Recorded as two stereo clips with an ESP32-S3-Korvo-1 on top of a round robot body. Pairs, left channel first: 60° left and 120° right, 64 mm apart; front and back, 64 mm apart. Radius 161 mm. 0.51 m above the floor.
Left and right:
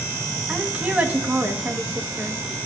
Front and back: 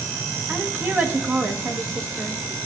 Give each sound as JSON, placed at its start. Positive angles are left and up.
{"t": 0.5, "sound": "a woman speaking", "azimuth_deg": -165, "distance_m": 1.3}